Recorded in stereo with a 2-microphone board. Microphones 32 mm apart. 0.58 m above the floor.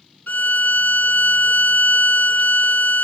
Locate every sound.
0.3 s a violin: 75° left (ahead or behind), 0.8 m